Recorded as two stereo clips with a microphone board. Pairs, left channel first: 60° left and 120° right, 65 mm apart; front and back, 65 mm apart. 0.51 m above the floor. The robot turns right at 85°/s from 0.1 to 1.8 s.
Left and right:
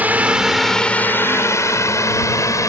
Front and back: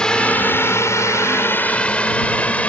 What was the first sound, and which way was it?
A drone, 70° right.